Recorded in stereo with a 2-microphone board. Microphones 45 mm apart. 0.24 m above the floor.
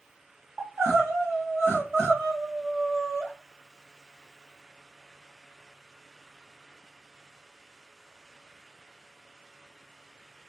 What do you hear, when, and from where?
0.6 s crying: 75° right (ahead or behind), 2.5 m